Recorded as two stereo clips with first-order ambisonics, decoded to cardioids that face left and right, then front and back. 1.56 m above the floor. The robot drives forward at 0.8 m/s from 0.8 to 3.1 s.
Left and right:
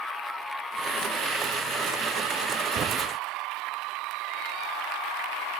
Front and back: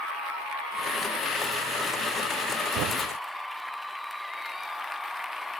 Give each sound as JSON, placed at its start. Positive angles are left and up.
{"t": 2.8, "sound": "a thud", "azimuth_deg": -150}